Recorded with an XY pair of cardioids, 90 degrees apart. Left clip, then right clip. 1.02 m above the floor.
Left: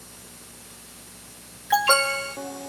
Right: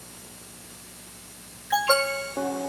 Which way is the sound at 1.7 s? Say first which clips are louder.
Left 2 dB; 45° left.